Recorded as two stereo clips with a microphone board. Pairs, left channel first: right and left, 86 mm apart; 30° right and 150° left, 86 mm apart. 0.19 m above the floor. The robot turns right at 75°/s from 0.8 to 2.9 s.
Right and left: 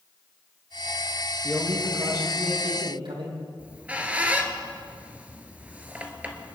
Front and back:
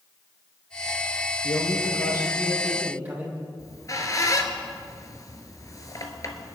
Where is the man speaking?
30° right, 5.5 m; by 3.4 s 80° left, 5.5 m.